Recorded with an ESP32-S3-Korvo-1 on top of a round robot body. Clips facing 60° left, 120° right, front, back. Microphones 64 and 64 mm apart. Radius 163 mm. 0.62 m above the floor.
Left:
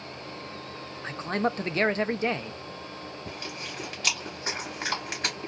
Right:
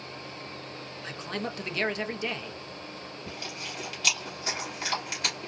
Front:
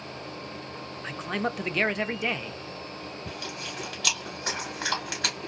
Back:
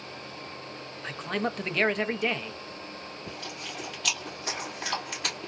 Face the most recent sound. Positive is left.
turn(degrees=5)